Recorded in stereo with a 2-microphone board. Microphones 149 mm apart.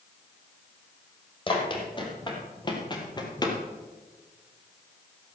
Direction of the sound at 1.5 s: 35° left (ahead or behind).